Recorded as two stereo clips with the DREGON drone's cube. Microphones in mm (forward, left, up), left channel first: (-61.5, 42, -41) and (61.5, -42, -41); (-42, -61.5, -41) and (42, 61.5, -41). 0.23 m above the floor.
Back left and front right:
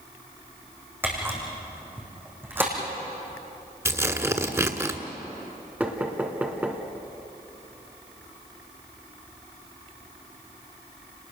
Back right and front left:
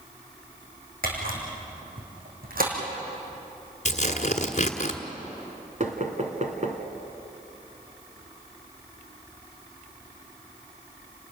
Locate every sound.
1.0 s a camera shutter: 40° left, 4.5 m
3.9 s tearing paper: 100° right, 1.4 m
5.8 s knocking: 45° left, 1.9 m